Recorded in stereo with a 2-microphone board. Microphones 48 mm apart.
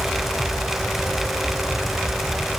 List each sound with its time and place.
Only background noise.